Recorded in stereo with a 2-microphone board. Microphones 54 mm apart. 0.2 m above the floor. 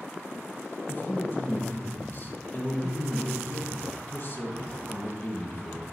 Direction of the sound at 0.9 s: 40° left (ahead or behind).